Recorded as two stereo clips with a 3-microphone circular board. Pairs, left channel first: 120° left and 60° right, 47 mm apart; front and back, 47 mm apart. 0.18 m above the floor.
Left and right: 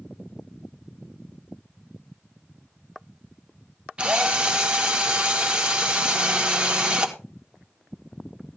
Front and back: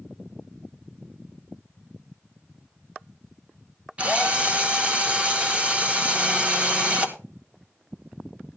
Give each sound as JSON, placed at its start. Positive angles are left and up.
{"t": 4.0, "sound": "a drill", "azimuth_deg": -120, "distance_m": 1.5}